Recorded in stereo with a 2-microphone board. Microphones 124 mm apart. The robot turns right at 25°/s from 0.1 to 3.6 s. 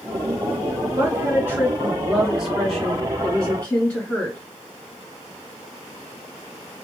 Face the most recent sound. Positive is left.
turn(degrees=20)